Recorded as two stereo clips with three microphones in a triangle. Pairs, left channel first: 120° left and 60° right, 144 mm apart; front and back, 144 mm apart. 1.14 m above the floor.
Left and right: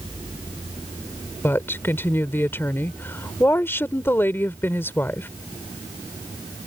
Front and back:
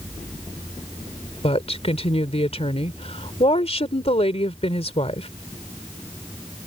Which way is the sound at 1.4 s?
45° left.